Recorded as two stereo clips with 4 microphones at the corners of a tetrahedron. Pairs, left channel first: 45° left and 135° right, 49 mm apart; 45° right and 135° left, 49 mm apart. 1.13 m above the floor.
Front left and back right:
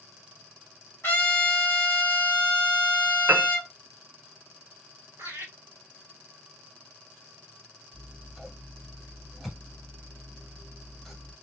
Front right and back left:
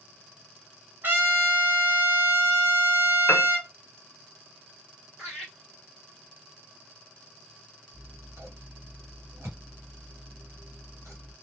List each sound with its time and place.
1.0 s a trumpet: 90° left, 1.6 m
3.3 s a piano: 95° right, 0.5 m
5.2 s laughter: 145° right, 1.0 m
7.9 s scissors: 135° left, 1.2 m